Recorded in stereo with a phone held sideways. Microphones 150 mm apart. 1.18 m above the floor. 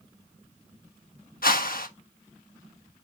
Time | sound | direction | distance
1.4 | a whoosh | 75° left (ahead or behind) | 1.3 m